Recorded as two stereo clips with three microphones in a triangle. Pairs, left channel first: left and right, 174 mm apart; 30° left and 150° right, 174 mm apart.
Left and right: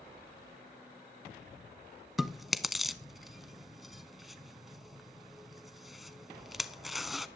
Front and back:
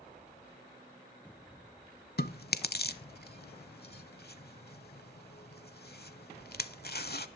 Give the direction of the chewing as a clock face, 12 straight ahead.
12 o'clock.